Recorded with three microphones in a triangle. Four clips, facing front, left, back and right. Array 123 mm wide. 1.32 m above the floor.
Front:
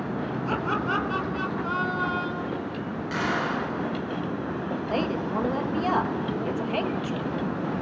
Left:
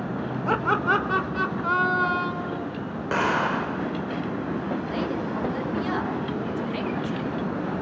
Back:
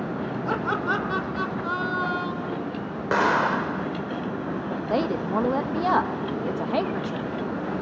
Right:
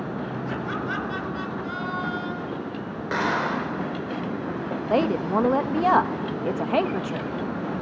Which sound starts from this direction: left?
Laughter, at 0.5 s.